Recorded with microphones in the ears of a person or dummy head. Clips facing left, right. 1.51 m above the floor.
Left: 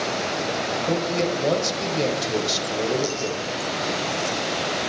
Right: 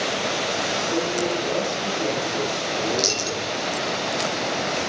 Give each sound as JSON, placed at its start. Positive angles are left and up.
{"t": 0.9, "sound": "a man speaking", "side_deg": 80, "distance_m": 8.5}
{"t": 2.9, "sound": "a dropped coin", "side_deg": -60, "distance_m": 6.0}